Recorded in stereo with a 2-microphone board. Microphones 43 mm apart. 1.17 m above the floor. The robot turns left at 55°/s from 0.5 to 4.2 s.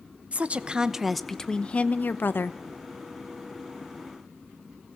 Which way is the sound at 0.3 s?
145° right.